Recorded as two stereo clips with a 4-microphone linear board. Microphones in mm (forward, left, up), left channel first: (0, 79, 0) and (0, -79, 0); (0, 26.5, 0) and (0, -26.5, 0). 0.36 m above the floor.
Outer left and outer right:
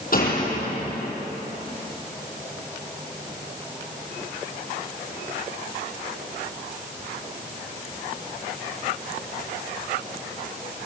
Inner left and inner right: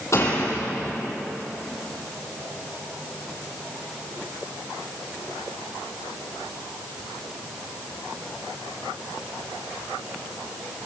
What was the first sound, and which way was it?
A door slam, 60° left (ahead or behind).